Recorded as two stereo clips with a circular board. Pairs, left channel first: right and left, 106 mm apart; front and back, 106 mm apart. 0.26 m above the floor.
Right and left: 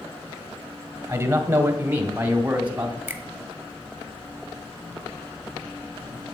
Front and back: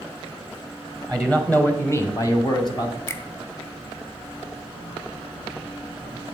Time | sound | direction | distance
1.1 | a man speaking | 85° left | 1.5 m
3.1 | a finger snap | 40° left | 1.0 m